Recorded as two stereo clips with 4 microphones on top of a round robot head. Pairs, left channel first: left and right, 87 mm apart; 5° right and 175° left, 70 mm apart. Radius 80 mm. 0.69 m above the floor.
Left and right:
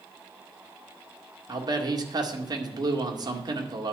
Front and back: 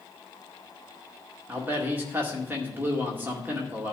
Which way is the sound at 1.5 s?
120° right.